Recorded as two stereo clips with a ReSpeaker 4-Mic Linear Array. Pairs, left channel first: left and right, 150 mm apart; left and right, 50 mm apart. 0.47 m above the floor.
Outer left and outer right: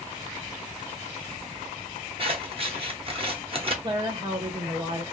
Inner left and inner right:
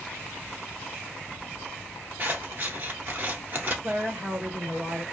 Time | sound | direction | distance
2.2 | scissors | 40° right (ahead or behind) | 0.8 m
3.8 | a woman speaking | 35° right (ahead or behind) | 1.2 m